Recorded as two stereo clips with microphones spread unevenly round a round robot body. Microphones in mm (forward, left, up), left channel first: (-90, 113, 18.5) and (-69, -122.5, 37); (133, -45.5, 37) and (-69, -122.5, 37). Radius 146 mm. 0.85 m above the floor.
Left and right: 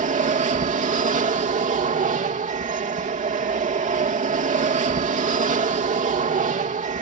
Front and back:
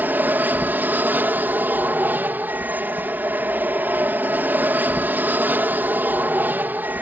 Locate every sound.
0.0 s an aircraft: 85° right